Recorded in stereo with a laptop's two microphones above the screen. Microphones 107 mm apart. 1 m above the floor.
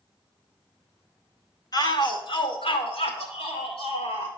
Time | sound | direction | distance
1.7 | a shout | 40° left (ahead or behind) | 1.3 m